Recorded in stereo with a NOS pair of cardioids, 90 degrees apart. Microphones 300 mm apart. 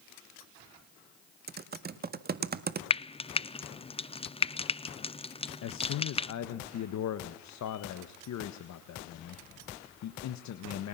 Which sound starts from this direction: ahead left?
A man speaking, at 5.6 s.